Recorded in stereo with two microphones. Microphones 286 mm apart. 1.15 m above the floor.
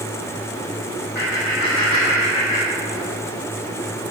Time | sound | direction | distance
1.1 | laughter | 35° left (ahead or behind) | 2 m